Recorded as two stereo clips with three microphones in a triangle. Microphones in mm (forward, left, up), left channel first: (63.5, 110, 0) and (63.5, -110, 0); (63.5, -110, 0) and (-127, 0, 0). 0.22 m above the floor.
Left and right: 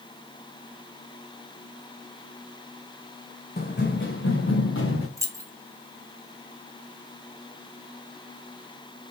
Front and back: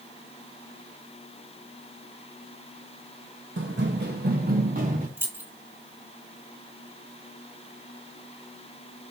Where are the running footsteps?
130° left, 0.7 m; by 5.1 s 100° left, 1.3 m.